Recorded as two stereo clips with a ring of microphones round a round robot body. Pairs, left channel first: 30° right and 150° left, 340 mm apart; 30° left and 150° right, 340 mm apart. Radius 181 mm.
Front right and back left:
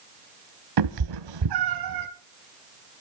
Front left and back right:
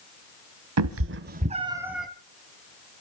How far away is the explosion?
I don't hear an explosion.